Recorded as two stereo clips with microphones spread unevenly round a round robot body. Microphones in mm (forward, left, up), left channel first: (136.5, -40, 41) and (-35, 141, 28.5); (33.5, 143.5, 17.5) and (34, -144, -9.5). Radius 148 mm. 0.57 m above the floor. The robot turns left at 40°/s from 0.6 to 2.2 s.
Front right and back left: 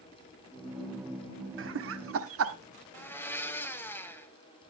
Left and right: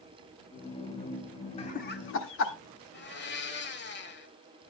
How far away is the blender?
About 1.9 m.